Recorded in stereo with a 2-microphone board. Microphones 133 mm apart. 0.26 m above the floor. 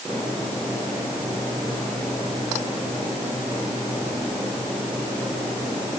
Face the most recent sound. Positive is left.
No sound to turn to.